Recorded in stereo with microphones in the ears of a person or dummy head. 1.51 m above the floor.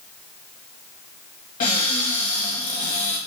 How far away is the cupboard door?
About 1.2 m.